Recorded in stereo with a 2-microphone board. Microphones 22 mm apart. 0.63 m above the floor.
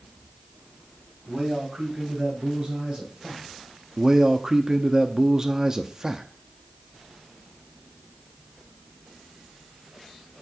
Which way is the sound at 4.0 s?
25° right (ahead or behind).